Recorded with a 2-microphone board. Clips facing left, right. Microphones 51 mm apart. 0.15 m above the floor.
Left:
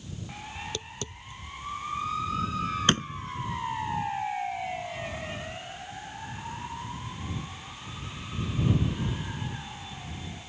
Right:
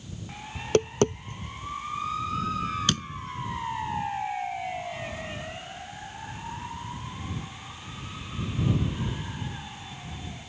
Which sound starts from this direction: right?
Tapping, at 0.6 s.